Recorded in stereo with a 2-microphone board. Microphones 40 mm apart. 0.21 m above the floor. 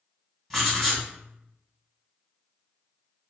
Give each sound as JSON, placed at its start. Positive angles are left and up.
{"t": 0.5, "sound": "writing", "side_deg": 5, "distance_m": 1.7}